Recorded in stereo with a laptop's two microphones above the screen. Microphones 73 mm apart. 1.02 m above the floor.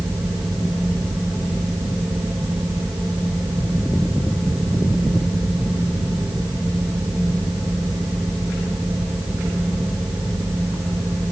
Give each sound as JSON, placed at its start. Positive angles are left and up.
{"t": 0.0, "sound": "a fan", "side_deg": -75, "distance_m": 9.5}